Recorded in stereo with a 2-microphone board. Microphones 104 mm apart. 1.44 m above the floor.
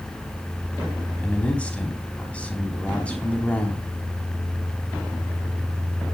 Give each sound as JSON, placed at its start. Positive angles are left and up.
{"t": 1.2, "sound": "a man speaking", "side_deg": 10, "distance_m": 4.0}